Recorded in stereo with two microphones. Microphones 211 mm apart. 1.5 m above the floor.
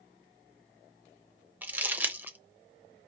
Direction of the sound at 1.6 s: 10° right (ahead or behind).